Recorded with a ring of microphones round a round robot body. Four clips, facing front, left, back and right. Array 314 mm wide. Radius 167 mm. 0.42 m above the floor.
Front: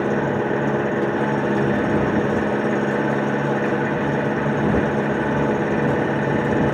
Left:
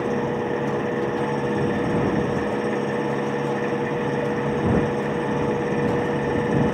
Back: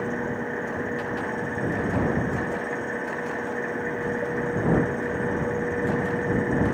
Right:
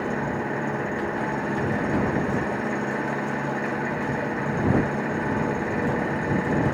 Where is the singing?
I don't hear singing.